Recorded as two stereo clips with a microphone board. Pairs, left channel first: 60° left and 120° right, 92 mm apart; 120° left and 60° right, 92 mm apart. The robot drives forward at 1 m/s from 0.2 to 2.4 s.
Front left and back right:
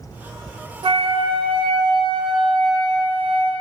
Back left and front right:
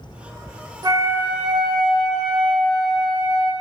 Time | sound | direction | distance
0.8 | a flute | 100° right | 0.6 m